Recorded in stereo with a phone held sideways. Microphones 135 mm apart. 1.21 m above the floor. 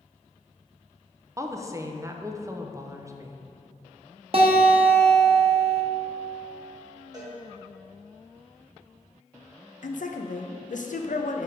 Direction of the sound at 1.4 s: 20° right (ahead or behind).